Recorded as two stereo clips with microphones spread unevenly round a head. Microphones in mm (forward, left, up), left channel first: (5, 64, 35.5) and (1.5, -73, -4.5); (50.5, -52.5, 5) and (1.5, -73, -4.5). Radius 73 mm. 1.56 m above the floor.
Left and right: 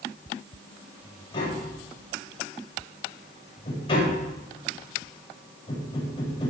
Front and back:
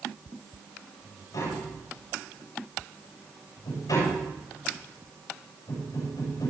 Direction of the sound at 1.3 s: 35° left.